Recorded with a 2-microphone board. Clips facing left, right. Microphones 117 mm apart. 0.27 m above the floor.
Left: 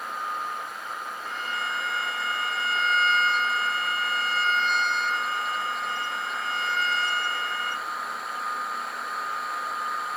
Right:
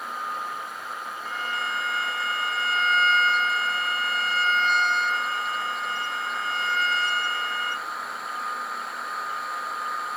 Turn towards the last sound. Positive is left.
turn(degrees=-5)  # may be behind; listen again after turning